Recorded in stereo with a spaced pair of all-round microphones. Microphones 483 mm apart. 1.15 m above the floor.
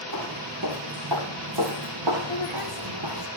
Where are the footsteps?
45° right (ahead or behind), 3 m; by 3.3 s 65° right (ahead or behind), 3 m.